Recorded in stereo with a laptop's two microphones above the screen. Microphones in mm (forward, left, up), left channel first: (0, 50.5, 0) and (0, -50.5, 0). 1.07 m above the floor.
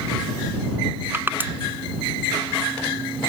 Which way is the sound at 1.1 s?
20° right (ahead or behind).